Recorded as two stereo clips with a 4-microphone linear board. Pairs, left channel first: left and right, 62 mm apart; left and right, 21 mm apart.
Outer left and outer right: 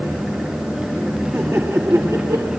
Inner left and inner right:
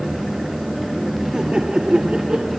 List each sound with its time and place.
1.3 s laughter: 45° right (ahead or behind), 1.8 m; by 2.5 s 65° right (ahead or behind), 2.5 m